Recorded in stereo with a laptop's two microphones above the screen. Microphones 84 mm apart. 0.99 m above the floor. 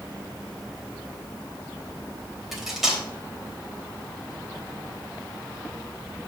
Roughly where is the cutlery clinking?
Centre.